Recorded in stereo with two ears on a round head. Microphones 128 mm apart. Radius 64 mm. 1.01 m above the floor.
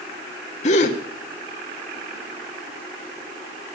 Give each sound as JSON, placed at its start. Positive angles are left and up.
{"t": 0.6, "sound": "a gasp", "side_deg": 50, "distance_m": 1.8}